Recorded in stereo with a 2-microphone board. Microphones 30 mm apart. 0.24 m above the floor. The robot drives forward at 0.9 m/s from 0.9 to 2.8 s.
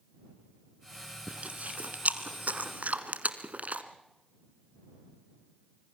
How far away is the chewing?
About 1.8 m.